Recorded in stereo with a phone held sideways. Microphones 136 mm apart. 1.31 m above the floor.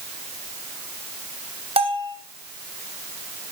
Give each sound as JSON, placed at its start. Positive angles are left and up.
{"t": 1.8, "sound": "a bell", "side_deg": -45, "distance_m": 3.0}